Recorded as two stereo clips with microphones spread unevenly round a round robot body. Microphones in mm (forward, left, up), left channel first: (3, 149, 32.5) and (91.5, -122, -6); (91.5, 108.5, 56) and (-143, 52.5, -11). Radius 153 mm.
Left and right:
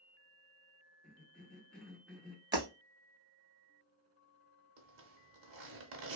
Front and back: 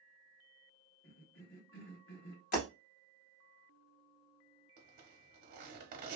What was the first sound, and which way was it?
A cough, 10° left.